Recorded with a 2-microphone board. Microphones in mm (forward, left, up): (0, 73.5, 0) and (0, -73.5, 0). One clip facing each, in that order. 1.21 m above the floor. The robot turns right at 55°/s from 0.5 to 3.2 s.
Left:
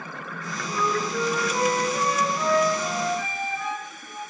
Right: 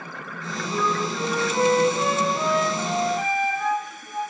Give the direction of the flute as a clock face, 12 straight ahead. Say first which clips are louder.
Right 1 dB; 9 o'clock.